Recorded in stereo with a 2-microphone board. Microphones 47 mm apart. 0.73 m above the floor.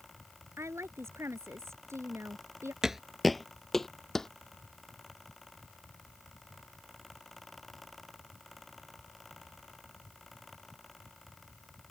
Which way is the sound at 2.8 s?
10° right (ahead or behind).